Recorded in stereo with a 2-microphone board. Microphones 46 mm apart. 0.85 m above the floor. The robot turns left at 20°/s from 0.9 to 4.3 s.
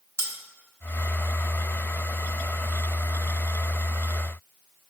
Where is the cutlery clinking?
65° right (ahead or behind), 0.6 m.